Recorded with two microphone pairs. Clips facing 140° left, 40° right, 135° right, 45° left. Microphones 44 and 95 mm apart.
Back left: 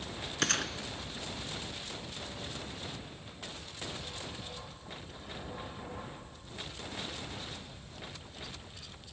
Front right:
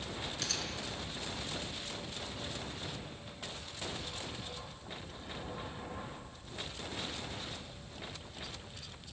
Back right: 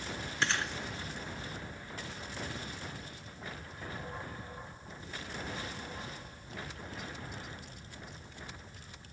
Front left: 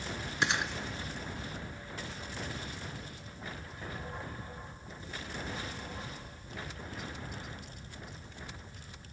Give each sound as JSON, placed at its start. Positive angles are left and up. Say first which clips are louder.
{"t": 0.4, "sound": "a gunshot", "louder": "back left 11 dB, front left 2 dB", "azimuth_deg": 120, "distance_m": 0.9}